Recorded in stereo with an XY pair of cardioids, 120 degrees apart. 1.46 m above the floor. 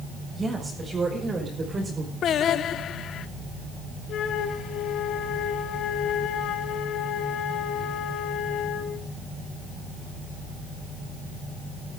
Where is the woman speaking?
25° right, 6.5 m; by 2.1 s 35° right, 4.5 m.